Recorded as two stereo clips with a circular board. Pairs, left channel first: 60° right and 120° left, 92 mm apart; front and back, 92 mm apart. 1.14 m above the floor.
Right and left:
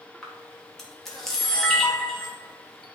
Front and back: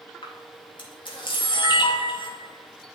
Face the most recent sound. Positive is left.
turn(degrees=25)